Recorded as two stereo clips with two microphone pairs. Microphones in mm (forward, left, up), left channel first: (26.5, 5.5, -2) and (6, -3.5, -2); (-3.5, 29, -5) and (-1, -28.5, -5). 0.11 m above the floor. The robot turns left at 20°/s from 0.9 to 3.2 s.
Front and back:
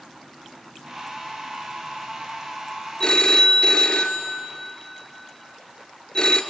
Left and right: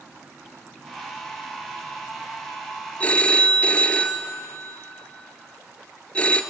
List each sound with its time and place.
3.0 s a phone ringing: 45° left, 0.9 m; by 6.4 s 40° left, 0.9 m